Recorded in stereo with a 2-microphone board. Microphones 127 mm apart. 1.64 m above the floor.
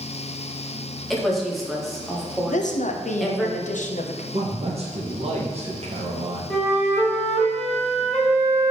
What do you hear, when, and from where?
1.1 s a woman speaking: centre (ahead or behind), 1.0 m
2.5 s a woman speaking: 70° left (ahead or behind), 0.5 m
4.3 s a man speaking: 50° right (ahead or behind), 1.2 m
6.5 s a flute: 10° left (ahead or behind), 1.3 m